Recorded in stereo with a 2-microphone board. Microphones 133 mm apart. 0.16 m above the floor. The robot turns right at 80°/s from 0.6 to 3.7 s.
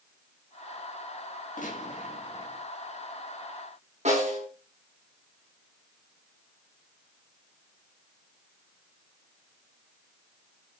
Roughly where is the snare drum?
Right.